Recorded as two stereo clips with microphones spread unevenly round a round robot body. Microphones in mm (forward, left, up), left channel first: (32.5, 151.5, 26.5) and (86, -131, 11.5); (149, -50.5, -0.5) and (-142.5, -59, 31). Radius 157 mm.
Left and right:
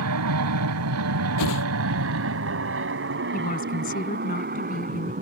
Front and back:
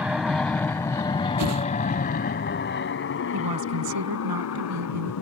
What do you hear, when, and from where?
0.0 s an aircraft: 90° right; by 5.2 s 20° right
1.4 s a whoosh: 135° left
3.3 s a woman speaking: 165° left